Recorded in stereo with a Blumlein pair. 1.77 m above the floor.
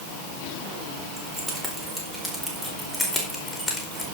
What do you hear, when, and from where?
1.2 s keys jangling: 15° right, 4 m; by 4.0 s 5° left, 4.5 m